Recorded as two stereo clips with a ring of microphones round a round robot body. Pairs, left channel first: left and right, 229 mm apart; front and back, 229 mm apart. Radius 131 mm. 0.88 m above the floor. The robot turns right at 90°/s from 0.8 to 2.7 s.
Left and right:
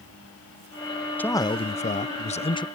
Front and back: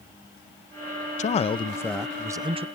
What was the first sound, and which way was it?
A man speaking, 15° left.